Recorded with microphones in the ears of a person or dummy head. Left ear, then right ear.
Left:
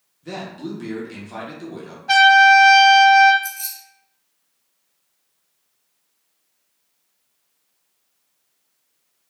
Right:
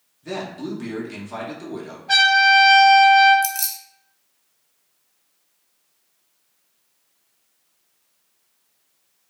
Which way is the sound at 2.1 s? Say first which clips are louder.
Left 4 dB; 55° left (ahead or behind).